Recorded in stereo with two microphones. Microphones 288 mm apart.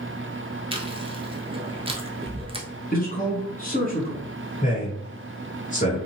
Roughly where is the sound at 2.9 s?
Left.